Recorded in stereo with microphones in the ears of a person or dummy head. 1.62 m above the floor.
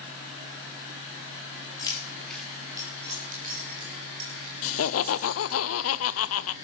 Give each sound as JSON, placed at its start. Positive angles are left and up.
{"t": 1.8, "sound": "keys jangling", "side_deg": 25, "distance_m": 2.5}
{"t": 4.6, "sound": "laughter", "side_deg": 70, "distance_m": 0.6}